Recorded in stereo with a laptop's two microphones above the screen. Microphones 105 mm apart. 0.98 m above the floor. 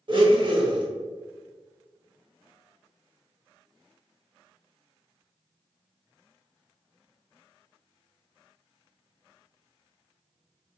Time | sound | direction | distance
0.1 | a blender | 50° right (ahead or behind) | 0.9 m